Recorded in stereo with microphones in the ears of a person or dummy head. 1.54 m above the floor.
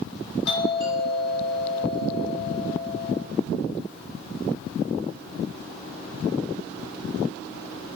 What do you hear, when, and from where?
0.5 s a doorbell: 65° left (ahead or behind), 4.5 m